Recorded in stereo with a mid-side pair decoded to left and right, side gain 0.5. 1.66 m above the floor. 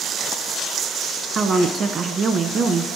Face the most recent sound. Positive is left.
turn(degrees=-45)